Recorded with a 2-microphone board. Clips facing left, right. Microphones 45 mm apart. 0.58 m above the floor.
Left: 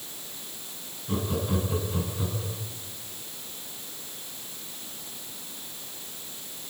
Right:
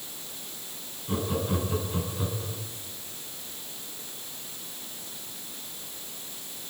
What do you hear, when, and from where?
1.1 s laughter: 5° right (ahead or behind), 4.5 m; by 2.6 s 10° right (ahead or behind), 6.5 m